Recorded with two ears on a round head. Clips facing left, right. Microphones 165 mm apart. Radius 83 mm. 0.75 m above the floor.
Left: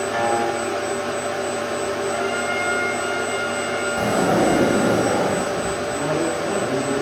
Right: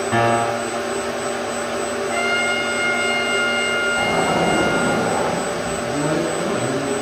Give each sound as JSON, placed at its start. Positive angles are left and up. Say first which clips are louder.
{"t": 0.1, "sound": "a piano", "louder": "right 4 dB", "side_deg": -70, "distance_m": 4.5}
{"t": 2.1, "sound": "a trumpet", "louder": "right 1 dB", "side_deg": -80, "distance_m": 6.5}
{"t": 4.0, "sound": "a sliding door", "louder": "left 2 dB", "side_deg": 30, "distance_m": 8.0}
{"t": 5.8, "sound": "a woman speaking", "louder": "right 4 dB", "side_deg": -40, "distance_m": 9.5}